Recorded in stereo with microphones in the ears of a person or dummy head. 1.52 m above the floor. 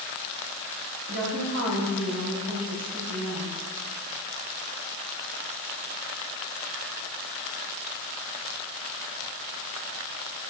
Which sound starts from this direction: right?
A woman speaking, at 1.1 s.